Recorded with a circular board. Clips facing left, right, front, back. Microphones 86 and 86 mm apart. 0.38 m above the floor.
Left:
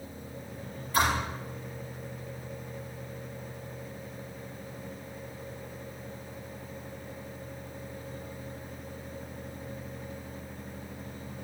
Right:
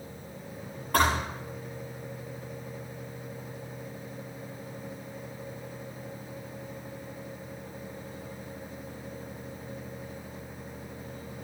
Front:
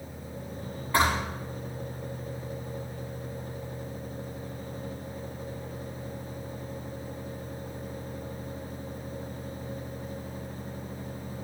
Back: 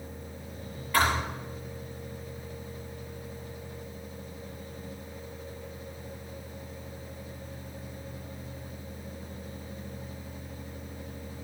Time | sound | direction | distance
0.9 | a thud | 60° right | 6.5 m